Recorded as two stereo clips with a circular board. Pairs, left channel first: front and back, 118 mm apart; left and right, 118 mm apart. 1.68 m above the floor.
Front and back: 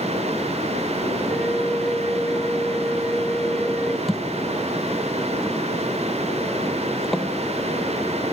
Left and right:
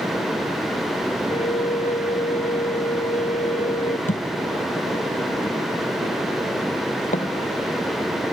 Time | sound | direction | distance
1.3 | a flute | 85° left | ?
4.1 | a thud | 90° left | ?